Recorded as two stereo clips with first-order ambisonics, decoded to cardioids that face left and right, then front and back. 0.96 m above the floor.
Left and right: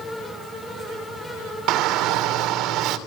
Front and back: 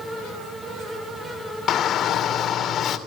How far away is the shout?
About 2.5 m.